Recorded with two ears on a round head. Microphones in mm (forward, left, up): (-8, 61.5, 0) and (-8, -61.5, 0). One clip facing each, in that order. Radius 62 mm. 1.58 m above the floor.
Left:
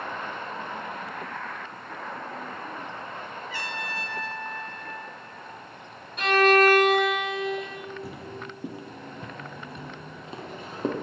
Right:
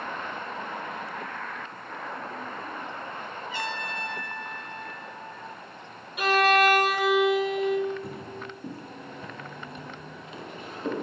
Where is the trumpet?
20° right (ahead or behind), 1.6 m.